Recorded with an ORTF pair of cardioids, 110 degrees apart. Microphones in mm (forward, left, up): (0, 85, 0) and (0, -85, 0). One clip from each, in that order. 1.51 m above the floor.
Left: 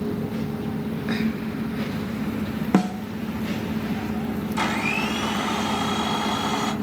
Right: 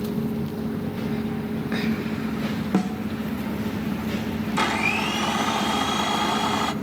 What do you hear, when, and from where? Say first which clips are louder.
2.7 s a snare drum: left 5 dB; 30° left, 0.9 m
4.6 s a blender: right 2 dB; 25° right, 2.5 m